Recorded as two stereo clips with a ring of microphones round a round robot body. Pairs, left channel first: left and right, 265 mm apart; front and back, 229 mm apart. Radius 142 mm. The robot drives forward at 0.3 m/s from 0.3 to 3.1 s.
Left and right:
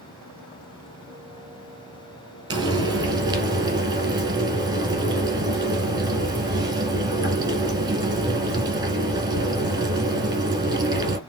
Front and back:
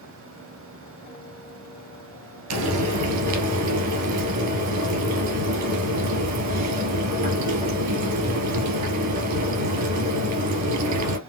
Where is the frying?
165° right, 1.9 m.